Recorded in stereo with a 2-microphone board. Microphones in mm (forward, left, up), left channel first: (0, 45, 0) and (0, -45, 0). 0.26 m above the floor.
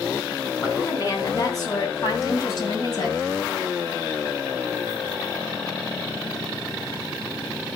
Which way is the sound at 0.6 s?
35° left (ahead or behind).